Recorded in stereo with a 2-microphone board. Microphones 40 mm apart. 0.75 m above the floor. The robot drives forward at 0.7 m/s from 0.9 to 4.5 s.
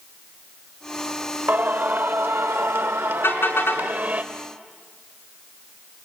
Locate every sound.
1.5 s singing: 50° right (ahead or behind), 1.4 m; by 4.2 s 45° right (ahead or behind), 1.5 m
3.2 s a car horn: 85° left, 4 m